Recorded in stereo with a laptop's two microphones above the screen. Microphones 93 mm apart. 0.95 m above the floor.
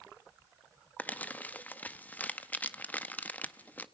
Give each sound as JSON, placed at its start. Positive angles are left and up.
{"t": 1.0, "sound": "crumpling", "side_deg": 20, "distance_m": 0.5}